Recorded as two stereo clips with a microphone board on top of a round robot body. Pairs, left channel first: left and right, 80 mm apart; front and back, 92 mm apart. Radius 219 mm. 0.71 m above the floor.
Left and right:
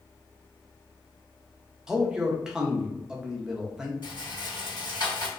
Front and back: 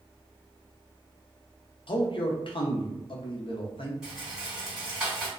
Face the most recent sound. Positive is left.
turn(degrees=100)